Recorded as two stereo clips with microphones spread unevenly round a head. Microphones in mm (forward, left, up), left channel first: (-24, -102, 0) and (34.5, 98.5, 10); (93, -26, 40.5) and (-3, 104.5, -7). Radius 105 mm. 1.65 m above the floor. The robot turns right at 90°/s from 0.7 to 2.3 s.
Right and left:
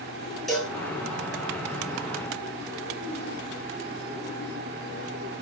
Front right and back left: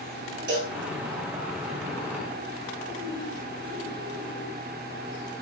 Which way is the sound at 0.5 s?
165° left.